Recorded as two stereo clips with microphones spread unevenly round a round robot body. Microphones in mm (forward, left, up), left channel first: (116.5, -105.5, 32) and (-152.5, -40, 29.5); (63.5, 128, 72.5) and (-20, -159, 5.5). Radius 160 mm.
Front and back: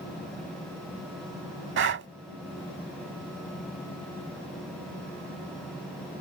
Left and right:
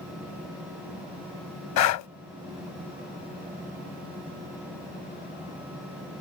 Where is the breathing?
110° left.